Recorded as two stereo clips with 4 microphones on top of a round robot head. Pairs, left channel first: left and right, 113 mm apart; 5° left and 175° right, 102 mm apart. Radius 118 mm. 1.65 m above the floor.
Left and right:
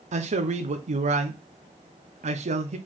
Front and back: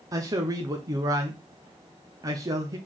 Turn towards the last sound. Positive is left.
turn(degrees=-115)